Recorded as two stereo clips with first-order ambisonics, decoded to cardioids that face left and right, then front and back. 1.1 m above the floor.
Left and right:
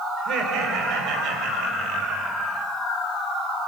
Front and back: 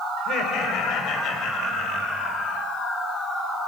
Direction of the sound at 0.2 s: 50° right.